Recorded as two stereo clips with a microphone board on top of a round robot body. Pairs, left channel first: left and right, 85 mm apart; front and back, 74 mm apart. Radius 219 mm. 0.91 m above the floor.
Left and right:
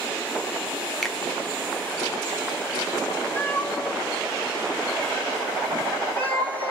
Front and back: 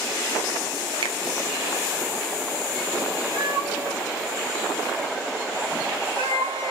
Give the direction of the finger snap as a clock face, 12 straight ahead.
6 o'clock.